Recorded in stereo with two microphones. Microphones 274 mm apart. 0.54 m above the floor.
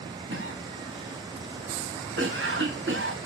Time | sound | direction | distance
0.3 | a cough | 45° right (ahead or behind) | 2.0 m